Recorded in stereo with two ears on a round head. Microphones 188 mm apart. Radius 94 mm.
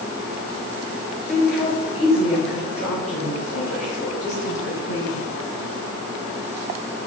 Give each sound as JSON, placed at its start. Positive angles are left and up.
{"t": 1.3, "sound": "a woman speaking", "side_deg": 5, "distance_m": 4.5}